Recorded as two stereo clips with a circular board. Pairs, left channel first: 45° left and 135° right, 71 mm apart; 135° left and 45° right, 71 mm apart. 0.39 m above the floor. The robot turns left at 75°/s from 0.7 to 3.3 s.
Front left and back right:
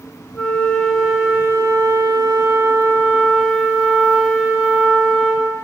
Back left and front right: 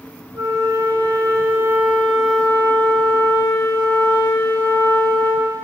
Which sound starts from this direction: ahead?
A flute, at 0.3 s.